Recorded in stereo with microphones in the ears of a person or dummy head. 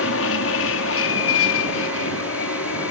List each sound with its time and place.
0.0 s an aircraft: 65° left (ahead or behind); by 2.9 s 70° left (ahead or behind)